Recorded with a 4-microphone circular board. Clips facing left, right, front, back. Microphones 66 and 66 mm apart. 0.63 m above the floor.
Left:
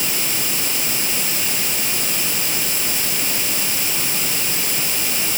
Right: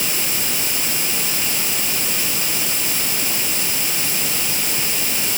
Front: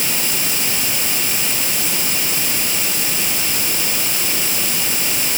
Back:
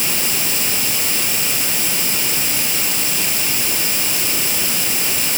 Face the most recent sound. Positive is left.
No sound to turn to.